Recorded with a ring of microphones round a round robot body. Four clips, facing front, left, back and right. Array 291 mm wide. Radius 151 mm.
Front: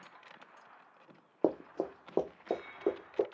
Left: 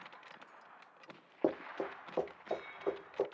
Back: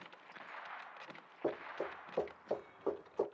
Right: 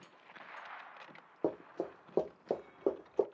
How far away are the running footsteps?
About 0.5 m.